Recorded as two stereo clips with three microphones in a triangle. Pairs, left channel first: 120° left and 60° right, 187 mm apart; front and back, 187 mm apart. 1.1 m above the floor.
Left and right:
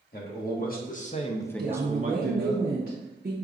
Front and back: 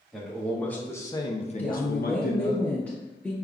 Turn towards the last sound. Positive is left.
turn(degrees=-80)